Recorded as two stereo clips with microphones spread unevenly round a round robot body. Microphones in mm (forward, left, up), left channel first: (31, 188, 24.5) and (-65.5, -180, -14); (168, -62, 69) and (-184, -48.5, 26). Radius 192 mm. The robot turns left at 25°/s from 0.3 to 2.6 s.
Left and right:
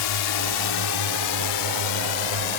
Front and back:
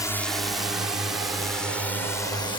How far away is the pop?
I don't hear a pop.